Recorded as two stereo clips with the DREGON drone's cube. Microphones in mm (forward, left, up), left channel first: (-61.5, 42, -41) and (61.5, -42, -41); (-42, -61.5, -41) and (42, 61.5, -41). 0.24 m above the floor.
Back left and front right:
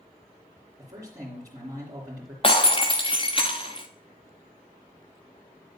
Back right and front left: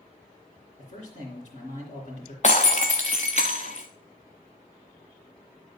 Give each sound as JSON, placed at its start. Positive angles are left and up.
{"t": 0.8, "sound": "a man speaking", "azimuth_deg": -95, "distance_m": 3.0}
{"t": 2.4, "sound": "breaking glass", "azimuth_deg": -165, "distance_m": 1.2}